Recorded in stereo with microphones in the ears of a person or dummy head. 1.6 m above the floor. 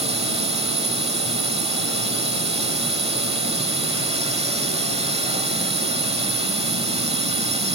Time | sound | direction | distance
0.0 | a drone | 30° right (ahead or behind) | ?